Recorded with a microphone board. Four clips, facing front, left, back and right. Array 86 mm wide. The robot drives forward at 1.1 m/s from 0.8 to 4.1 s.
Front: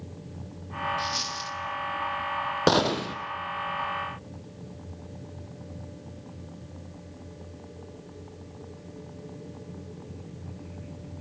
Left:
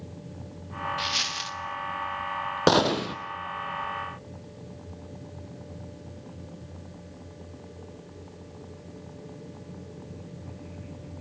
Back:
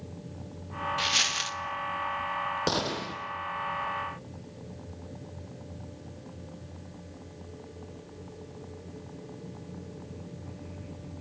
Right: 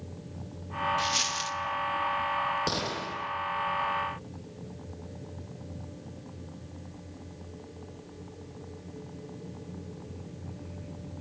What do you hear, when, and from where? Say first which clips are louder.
1.0 s a dropped coin: right 2 dB, even; 165° left, 0.6 m; by 1.6 s 170° left, 1.2 m
2.7 s a gunshot: left 11 dB, front 7 dB; 55° left, 2 m; by 3.1 s 70° left, 1.9 m